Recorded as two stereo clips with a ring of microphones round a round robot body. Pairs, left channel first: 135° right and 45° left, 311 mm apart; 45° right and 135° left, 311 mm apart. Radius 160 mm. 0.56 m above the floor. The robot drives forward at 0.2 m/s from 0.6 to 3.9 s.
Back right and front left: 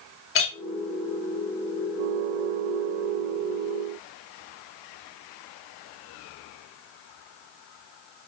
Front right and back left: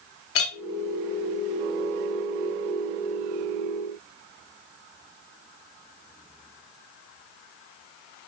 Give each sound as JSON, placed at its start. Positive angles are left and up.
{"t": 0.3, "sound": "a clink", "azimuth_deg": -90, "distance_m": 0.7}